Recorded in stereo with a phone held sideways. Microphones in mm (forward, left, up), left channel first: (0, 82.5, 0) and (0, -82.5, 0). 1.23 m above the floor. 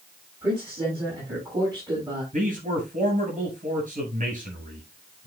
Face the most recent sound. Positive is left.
turn(degrees=-50)  # may be behind; listen again after turning